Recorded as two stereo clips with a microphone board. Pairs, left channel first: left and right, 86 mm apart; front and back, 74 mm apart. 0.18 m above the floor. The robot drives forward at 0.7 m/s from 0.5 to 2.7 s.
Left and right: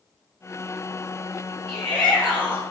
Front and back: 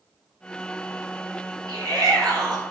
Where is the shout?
160° left, 3.5 m; by 2.6 s 165° left, 4 m.